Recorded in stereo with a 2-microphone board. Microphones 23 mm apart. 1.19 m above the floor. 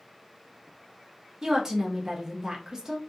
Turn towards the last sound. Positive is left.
turn(degrees=-25)  # may be behind; listen again after turning